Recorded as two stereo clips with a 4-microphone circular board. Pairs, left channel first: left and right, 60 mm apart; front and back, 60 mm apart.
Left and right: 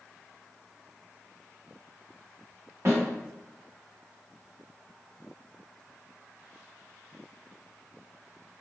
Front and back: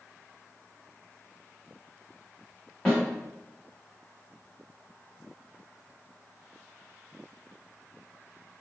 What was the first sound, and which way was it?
A snare drum, 65° right.